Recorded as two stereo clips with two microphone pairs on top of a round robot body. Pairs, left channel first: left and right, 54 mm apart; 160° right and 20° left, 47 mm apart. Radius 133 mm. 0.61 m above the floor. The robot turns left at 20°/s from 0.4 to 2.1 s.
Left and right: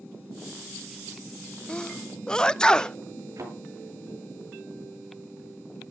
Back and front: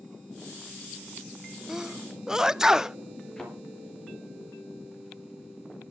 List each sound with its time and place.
1.7 s a sneeze: 30° left, 0.7 m; by 3.0 s 20° left, 0.7 m
3.4 s a thud: 85° right, 6 m